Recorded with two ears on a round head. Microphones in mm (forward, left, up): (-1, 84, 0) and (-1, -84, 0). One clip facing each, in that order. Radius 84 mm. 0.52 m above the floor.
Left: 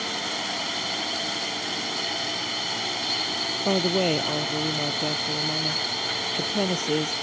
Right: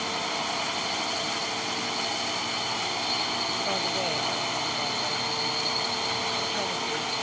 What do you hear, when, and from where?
0.0 s a drone: 15° left (ahead or behind)
3.6 s a woman speaking: 60° left (ahead or behind)